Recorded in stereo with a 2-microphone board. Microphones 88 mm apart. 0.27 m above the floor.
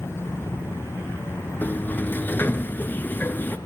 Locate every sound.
1.6 s a sliding door: 20° left (ahead or behind), 1.0 m